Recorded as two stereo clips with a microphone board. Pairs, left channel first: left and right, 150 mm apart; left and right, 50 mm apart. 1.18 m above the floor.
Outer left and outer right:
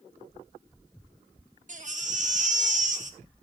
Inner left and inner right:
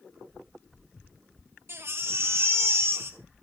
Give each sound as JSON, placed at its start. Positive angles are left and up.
{"t": 1.7, "sound": "a baby crying", "side_deg": -55, "distance_m": 1.2}